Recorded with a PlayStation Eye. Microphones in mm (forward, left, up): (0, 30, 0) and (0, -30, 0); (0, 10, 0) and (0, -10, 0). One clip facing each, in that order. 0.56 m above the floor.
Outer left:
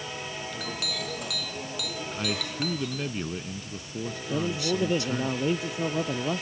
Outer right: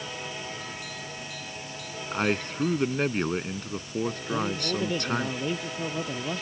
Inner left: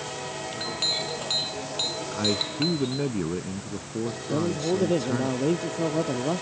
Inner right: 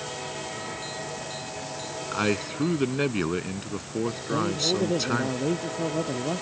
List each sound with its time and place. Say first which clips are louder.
0.5 s a clink: outer left 3 dB, inner left 7 dB; 85° left
2.1 s a man speaking: outer right 7 dB, inner right 2 dB; 50° right (ahead or behind)
4.3 s a man speaking: outer left 4 dB, even; 15° left (ahead or behind)